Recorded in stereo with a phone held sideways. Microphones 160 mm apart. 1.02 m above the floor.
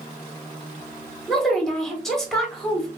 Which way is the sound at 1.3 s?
5° left (ahead or behind).